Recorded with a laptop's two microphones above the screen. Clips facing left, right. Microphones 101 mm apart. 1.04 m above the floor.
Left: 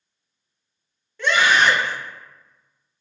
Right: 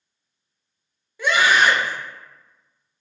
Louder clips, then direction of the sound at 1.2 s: Even; 10° right (ahead or behind).